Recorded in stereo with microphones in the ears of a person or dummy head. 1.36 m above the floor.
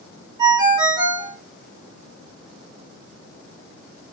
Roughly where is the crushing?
I don't hear crushing.